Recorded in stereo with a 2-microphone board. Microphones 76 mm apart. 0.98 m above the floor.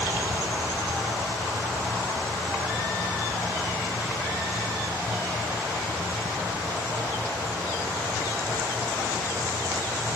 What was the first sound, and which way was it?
Only background noise.